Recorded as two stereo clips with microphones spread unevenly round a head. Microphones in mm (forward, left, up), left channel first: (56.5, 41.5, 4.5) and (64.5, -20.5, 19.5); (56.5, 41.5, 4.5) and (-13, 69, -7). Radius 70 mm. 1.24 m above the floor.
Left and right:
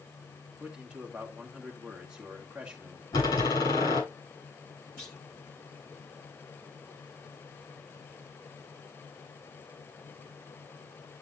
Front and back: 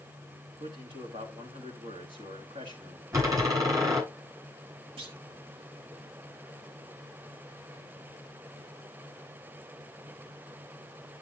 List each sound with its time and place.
0.6 s a man speaking: 165° right, 2 m
3.1 s a door slam: 115° left, 9.5 m
5.0 s a clunk: 175° left, 1.7 m